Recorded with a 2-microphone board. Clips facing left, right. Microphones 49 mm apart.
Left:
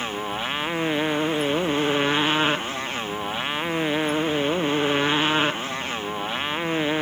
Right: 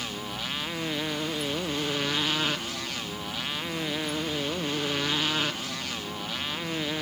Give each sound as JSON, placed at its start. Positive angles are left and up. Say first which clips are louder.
{"t": 0.0, "sound": "a motorcycle", "louder": "left 7 dB", "side_deg": 30}